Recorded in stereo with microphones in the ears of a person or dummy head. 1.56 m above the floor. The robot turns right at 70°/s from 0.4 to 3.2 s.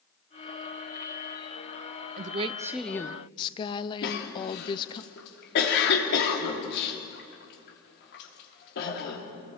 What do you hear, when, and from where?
2.2 s a woman speaking: 45° right, 0.6 m; by 5.0 s 30° left, 0.6 m
4.0 s a cough: 60° left (ahead or behind), 3 m